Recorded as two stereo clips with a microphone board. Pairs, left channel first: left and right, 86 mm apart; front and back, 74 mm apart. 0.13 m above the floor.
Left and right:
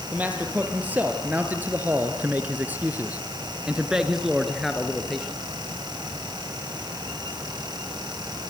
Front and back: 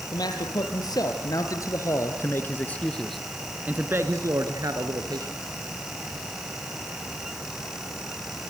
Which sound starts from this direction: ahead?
A man speaking, at 0.1 s.